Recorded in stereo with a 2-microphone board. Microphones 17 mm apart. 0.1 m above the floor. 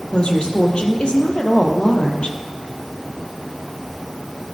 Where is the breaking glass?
No breaking glass in this recording.